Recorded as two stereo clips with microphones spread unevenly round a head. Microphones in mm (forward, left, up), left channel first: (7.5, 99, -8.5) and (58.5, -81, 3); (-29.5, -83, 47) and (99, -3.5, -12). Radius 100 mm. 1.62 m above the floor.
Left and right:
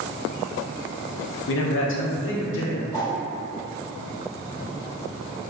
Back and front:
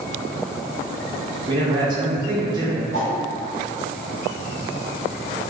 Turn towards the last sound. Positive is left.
turn(degrees=175)